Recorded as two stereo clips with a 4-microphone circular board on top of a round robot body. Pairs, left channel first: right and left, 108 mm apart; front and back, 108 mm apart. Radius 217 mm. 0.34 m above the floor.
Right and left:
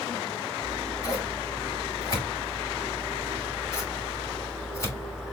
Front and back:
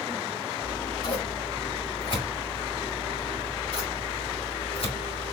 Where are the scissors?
30° right, 2.5 m.